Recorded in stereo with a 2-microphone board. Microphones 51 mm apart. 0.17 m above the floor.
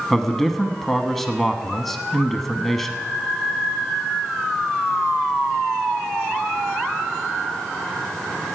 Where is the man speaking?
5° left (ahead or behind), 1.0 m.